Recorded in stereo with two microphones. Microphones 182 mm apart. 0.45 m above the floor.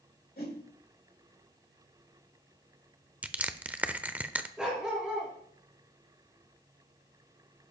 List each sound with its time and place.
0.4 s a whoosh: 60° left (ahead or behind), 1.7 m
3.2 s crushing: 10° right (ahead or behind), 0.6 m
4.6 s a dog barking: 5° right (ahead or behind), 3.5 m